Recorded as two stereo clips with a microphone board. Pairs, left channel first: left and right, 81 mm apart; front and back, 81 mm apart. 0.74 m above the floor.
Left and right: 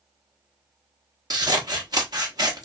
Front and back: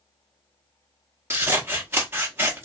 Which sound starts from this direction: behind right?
Scissors, at 1.3 s.